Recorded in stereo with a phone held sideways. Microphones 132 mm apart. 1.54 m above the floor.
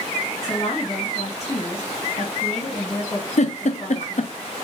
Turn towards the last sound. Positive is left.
turn(degrees=65)  # may be behind; listen again after turning